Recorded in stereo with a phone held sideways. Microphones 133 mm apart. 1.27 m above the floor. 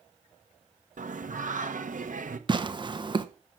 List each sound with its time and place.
1.0 s singing: 75° right (ahead or behind), 1.3 m
2.5 s tearing paper: 35° right (ahead or behind), 1.0 m